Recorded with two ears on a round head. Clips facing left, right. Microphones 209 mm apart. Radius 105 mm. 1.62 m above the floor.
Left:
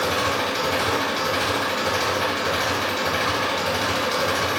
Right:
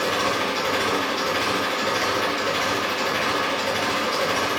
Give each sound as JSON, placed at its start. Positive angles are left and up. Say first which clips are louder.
{"t": 0.0, "sound": "an engine running", "louder": "even", "side_deg": 50, "distance_m": 0.9}